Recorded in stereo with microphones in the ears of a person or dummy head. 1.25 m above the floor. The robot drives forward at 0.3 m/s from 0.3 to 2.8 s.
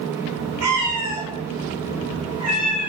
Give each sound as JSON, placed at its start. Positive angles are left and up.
{"t": 0.6, "sound": "a cat meowing", "side_deg": -55, "distance_m": 1.4}